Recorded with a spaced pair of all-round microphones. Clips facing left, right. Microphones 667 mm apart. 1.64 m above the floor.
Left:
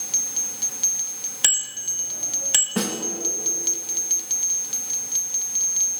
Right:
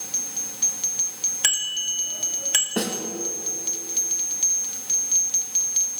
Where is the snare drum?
35° left (ahead or behind), 2.5 m.